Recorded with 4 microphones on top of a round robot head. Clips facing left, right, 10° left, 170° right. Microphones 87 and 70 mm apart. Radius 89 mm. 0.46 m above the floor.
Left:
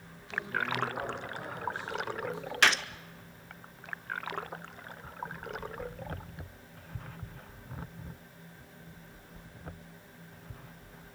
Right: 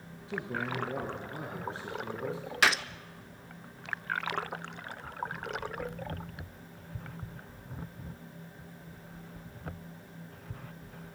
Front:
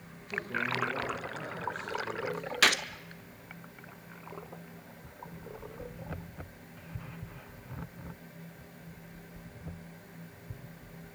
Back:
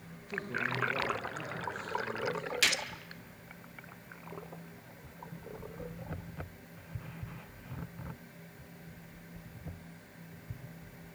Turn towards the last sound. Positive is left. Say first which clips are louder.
# even, front 7 dB
turn(degrees=-5)